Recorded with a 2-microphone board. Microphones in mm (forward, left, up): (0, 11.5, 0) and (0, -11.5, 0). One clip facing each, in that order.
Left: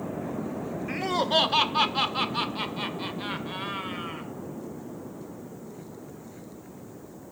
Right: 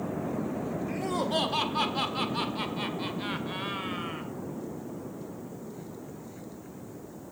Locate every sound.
0.9 s laughter: 45° left (ahead or behind), 1.0 m; by 4.3 s 5° right (ahead or behind), 2.0 m